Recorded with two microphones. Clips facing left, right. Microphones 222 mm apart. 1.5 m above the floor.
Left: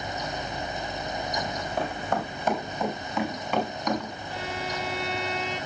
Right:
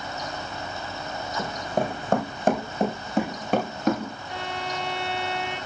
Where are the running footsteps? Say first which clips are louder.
Right 7 dB; 45° right (ahead or behind), 5 m.